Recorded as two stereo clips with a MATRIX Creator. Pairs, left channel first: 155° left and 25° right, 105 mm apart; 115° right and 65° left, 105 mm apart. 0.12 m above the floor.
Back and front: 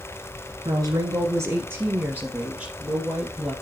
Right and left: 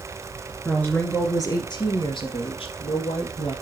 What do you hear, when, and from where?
0.7 s a woman speaking: 35° right, 1.4 m; by 3.5 s 105° right, 3 m